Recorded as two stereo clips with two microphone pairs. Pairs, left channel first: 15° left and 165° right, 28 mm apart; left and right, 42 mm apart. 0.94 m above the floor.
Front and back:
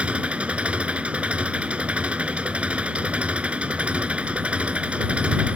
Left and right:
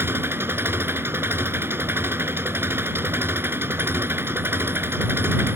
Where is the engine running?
120° right.